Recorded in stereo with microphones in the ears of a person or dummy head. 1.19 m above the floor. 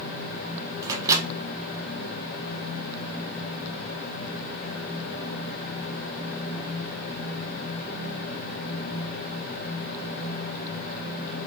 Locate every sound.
0.8 s a microwave: 15° right (ahead or behind), 0.6 m